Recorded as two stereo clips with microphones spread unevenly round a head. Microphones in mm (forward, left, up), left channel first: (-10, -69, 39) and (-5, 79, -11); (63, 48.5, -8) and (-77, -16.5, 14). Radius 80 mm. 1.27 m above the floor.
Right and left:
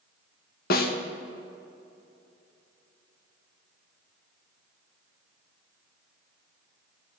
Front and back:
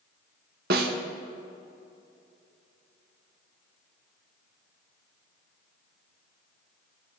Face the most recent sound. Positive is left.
turn(degrees=-125)